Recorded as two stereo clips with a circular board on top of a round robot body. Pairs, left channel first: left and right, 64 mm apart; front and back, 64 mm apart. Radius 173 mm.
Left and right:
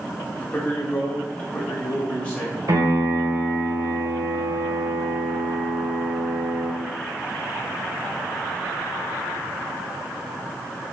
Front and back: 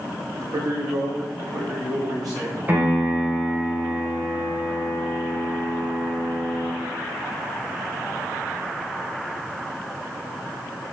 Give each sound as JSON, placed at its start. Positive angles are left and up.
{"t": 0.4, "sound": "a man speaking", "azimuth_deg": 160, "distance_m": 1.9}
{"t": 2.7, "sound": "a piano", "azimuth_deg": -120, "distance_m": 2.5}